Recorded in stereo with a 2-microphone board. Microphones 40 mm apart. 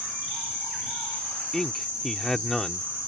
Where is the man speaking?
10° left (ahead or behind).